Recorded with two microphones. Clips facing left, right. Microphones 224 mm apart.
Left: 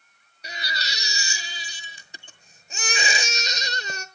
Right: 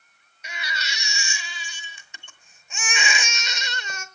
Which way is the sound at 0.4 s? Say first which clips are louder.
Even; 35° left (ahead or behind).